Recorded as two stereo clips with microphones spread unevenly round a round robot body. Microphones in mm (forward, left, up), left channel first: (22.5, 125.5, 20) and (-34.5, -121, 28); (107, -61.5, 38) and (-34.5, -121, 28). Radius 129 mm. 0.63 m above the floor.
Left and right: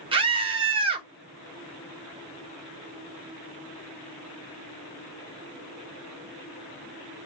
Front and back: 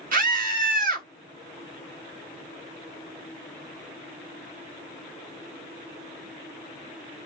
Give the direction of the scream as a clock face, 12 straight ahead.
6 o'clock.